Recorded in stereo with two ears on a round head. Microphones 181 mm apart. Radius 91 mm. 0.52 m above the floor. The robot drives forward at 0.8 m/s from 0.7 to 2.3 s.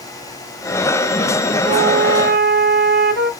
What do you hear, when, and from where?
1.7 s a flute: 35° right (ahead or behind), 0.8 m; by 3.3 s 50° right (ahead or behind), 0.6 m